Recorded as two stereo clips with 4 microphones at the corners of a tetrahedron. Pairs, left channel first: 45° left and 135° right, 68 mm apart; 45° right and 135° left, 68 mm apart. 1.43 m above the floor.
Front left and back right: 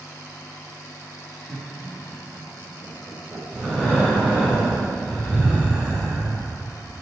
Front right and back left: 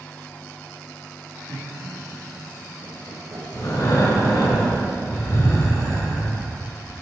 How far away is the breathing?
About 3.5 m.